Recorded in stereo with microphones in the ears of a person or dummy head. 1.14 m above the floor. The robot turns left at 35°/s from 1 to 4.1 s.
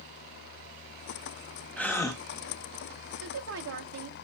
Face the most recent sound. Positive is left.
turn(degrees=-130)